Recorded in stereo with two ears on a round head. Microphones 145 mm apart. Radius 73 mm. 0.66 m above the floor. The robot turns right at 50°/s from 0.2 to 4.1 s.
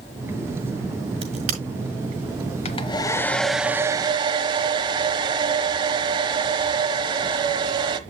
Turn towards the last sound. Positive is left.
turn(degrees=-150)